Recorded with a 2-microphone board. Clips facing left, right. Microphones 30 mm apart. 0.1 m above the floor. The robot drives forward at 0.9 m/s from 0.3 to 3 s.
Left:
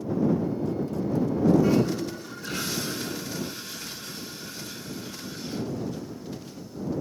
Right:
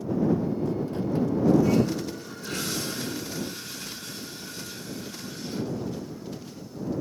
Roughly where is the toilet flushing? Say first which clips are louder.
Even; left.